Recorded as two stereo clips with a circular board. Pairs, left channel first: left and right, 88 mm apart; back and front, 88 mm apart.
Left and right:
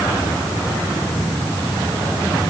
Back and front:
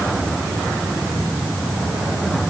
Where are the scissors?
I don't hear scissors.